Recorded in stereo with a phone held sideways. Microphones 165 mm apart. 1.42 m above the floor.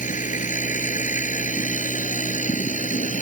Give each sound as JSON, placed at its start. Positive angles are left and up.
{"t": 0.0, "sound": "a machine running", "side_deg": 50}